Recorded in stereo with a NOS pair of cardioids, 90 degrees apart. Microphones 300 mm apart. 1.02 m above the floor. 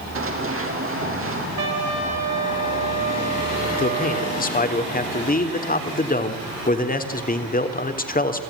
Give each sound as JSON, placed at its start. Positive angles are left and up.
{"t": 0.1, "sound": "running footsteps", "azimuth_deg": -45, "distance_m": 4.0}
{"t": 1.6, "sound": "a trumpet", "azimuth_deg": -60, "distance_m": 5.5}
{"t": 3.8, "sound": "a man speaking", "azimuth_deg": 30, "distance_m": 3.5}